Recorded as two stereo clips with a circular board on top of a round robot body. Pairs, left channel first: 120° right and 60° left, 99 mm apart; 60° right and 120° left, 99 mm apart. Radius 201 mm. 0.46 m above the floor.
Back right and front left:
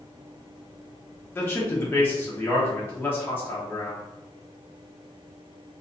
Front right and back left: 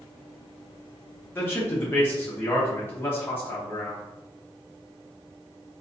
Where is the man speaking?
85° right, 1.0 m.